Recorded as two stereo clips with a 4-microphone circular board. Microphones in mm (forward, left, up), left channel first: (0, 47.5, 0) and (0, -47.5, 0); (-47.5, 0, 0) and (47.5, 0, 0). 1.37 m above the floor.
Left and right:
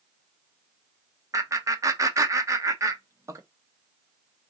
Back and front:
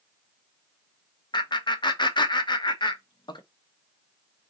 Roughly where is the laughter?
Behind right.